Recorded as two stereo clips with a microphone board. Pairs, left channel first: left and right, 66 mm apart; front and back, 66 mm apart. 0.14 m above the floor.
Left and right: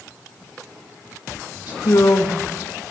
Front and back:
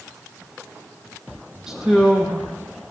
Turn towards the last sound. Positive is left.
turn(degrees=100)